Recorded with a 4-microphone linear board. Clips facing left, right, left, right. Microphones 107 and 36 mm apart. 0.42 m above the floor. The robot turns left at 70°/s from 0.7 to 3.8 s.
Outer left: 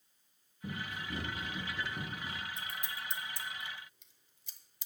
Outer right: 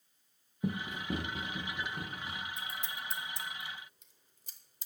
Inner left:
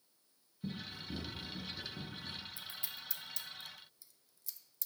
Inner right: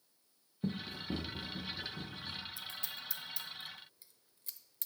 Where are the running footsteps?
75° right (ahead or behind), 1.5 m; by 2.4 s 60° left (ahead or behind), 4 m.